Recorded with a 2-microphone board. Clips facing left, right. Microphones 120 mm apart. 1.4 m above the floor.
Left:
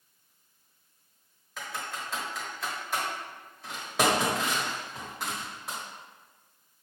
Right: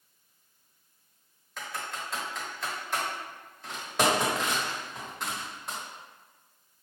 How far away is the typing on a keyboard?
About 1.1 m.